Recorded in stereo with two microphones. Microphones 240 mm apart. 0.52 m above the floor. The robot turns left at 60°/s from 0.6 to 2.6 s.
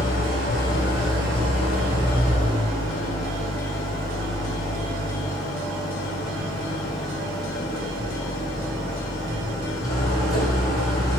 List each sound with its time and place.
0.0 s an engine running: 135° left, 2.5 m; by 11.2 s 15° left, 2.5 m